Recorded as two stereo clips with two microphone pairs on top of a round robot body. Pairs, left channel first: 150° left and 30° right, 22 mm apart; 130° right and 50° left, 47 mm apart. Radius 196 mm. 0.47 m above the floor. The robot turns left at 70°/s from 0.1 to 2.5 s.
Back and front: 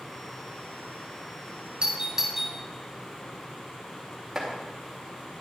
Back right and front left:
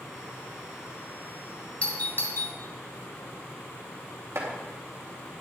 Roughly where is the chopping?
Ahead left.